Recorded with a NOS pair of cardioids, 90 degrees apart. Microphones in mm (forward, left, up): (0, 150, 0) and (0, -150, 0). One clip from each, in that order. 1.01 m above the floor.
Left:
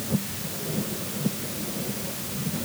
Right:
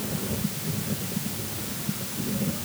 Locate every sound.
Only background noise.